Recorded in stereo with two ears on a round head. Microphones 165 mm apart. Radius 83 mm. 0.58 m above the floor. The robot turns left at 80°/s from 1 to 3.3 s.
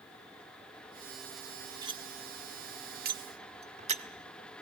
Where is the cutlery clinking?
20° right (ahead or behind), 0.8 m; by 4.0 s 40° right (ahead or behind), 0.8 m.